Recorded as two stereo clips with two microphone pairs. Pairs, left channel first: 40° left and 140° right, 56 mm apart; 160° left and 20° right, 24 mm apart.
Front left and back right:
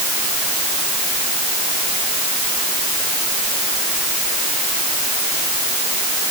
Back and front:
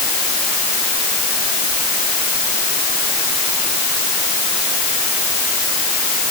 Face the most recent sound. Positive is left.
No sound to turn to.